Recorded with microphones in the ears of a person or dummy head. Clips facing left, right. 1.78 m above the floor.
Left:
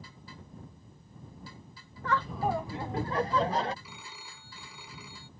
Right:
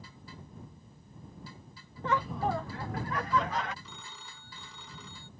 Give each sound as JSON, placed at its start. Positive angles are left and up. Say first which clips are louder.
{"t": 2.0, "sound": "laughter", "louder": "even", "side_deg": -25}
{"t": 3.8, "sound": "a phone ringing", "louder": "left 1 dB", "side_deg": 10}